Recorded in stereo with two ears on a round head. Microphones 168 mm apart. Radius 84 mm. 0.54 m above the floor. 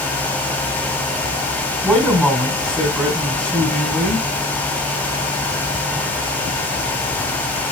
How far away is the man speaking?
About 4 m.